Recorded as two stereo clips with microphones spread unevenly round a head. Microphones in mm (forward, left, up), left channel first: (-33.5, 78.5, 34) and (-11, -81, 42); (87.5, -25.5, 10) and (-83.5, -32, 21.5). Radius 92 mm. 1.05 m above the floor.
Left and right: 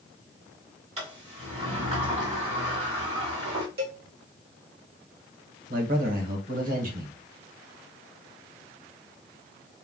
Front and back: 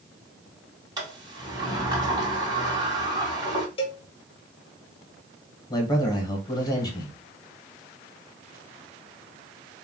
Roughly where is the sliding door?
Behind right.